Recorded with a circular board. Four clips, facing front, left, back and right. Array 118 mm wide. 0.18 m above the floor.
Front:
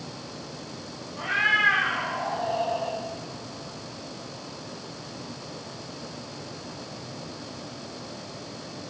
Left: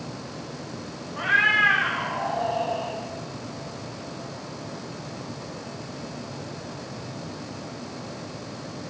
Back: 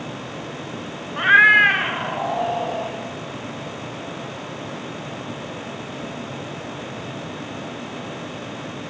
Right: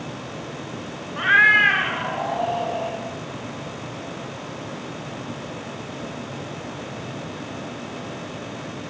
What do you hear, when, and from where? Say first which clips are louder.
1.2 s a cat meowing: right 5 dB, back 11 dB; 155° right, 0.6 m; by 3.0 s 150° right, 2.5 m